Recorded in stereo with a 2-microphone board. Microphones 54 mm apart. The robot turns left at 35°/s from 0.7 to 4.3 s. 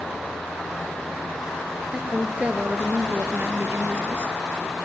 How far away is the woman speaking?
About 2 m.